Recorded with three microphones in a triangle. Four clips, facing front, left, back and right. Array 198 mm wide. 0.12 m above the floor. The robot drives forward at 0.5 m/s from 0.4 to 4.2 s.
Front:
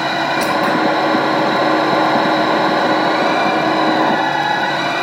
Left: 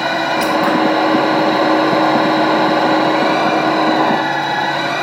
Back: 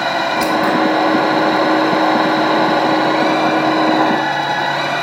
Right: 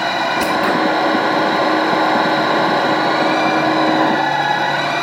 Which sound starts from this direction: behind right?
Scissors, at 0.4 s.